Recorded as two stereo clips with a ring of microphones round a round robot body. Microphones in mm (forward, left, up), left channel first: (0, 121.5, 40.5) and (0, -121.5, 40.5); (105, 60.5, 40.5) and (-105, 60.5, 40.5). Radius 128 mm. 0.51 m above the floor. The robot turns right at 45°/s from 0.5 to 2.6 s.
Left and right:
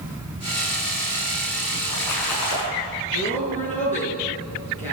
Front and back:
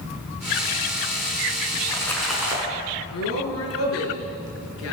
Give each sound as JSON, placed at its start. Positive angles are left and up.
{"t": 1.7, "sound": "a splash", "azimuth_deg": 65, "distance_m": 6.5}
{"t": 3.1, "sound": "a woman speaking", "azimuth_deg": 25, "distance_m": 7.0}